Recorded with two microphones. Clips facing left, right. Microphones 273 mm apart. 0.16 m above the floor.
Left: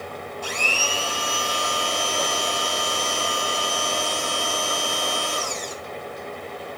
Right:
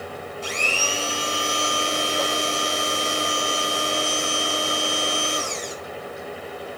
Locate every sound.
0.4 s a blender: 25° right (ahead or behind), 1.7 m